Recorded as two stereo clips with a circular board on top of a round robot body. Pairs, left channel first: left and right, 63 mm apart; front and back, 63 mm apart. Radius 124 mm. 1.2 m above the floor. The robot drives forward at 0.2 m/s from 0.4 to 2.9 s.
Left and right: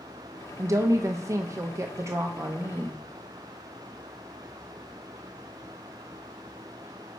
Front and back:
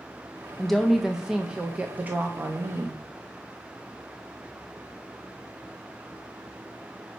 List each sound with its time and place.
0.6 s a woman speaking: 85° right, 0.6 m; by 3.0 s 135° right, 0.7 m